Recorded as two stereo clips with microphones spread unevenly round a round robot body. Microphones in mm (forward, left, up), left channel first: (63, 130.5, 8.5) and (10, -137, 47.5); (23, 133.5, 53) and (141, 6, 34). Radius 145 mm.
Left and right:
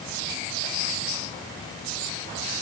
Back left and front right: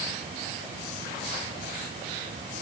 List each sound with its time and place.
Only background noise.